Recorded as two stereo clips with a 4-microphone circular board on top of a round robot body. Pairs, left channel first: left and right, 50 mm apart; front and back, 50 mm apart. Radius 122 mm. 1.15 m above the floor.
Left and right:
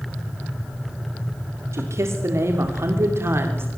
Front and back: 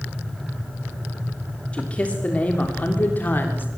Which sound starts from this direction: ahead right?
A man speaking, at 1.7 s.